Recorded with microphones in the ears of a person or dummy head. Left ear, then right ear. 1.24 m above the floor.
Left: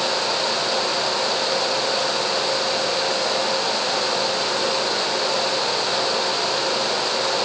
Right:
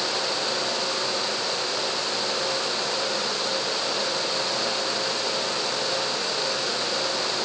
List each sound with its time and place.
Only background noise.